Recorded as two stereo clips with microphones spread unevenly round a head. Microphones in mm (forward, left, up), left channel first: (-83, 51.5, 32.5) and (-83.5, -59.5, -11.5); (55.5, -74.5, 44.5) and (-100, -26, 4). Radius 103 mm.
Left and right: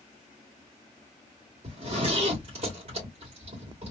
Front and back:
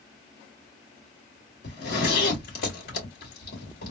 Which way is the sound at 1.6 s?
45° right.